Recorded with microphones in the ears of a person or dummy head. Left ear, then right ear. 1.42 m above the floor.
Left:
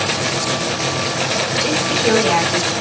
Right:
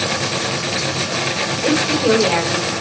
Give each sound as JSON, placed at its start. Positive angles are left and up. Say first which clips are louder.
{"t": 1.6, "sound": "a woman speaking", "louder": "right 4 dB", "side_deg": -40, "distance_m": 6.0}